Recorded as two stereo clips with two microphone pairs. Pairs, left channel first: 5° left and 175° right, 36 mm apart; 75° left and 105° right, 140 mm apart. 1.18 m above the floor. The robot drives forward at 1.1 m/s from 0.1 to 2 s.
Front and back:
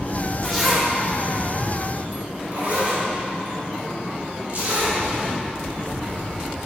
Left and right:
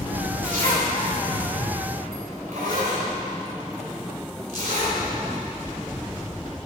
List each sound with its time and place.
0.4 s a zipper: 75° right, 1.9 m; by 5.0 s 125° right, 2 m